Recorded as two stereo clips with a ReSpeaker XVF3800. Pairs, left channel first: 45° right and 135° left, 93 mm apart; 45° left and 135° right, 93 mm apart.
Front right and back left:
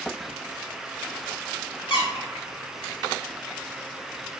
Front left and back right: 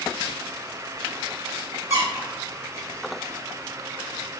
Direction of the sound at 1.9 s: 75° right.